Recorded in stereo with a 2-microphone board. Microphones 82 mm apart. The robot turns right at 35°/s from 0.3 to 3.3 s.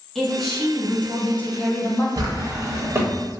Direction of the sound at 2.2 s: 70° right.